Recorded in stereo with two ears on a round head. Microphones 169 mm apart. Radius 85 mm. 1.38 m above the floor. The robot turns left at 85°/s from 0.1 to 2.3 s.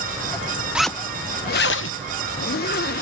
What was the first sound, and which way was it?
A zipper, 175° right.